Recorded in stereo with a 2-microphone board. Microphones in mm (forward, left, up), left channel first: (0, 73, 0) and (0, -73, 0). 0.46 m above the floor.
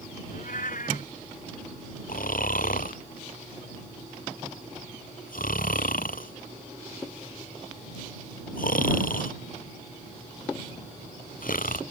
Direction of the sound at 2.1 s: 70° left (ahead or behind).